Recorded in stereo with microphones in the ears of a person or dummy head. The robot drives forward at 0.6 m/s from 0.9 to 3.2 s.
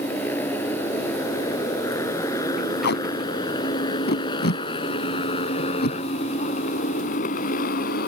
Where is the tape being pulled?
60° left (ahead or behind); by 6.0 s 55° left (ahead or behind).